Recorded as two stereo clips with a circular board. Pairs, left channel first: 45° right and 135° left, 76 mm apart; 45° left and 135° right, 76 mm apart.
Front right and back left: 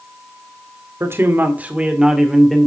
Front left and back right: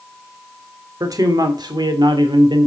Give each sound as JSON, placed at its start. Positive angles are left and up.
{"t": 1.0, "sound": "a man speaking", "azimuth_deg": -170, "distance_m": 1.6}